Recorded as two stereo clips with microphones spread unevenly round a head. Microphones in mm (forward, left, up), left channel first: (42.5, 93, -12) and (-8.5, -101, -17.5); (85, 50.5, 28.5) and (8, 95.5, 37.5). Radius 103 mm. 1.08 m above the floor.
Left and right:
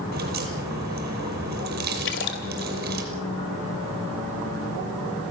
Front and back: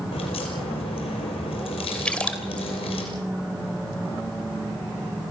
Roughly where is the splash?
Ahead left.